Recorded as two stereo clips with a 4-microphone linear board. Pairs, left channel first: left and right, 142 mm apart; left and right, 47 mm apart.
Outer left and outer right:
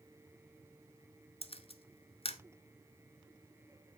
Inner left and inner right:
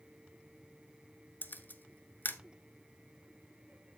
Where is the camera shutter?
45° left (ahead or behind), 1.0 m.